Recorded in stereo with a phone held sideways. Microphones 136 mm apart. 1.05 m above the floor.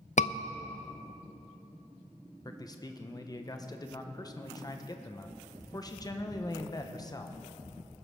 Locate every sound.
0.2 s a scream: 60° left (ahead or behind), 0.5 m
2.5 s a man speaking: 30° left (ahead or behind), 0.8 m